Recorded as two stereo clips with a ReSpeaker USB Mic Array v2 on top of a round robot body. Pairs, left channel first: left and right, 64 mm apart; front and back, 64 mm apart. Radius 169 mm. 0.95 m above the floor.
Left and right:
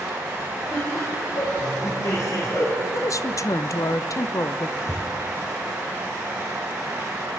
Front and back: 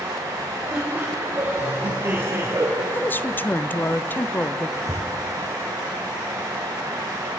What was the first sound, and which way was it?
Laughter, 110° left.